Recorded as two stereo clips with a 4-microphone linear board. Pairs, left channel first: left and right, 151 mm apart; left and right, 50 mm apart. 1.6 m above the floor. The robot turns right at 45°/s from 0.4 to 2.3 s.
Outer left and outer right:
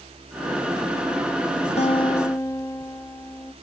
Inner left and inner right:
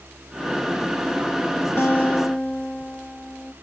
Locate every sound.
1.8 s a guitar: 45° left (ahead or behind), 1.0 m; by 3.5 s 20° left (ahead or behind), 1.0 m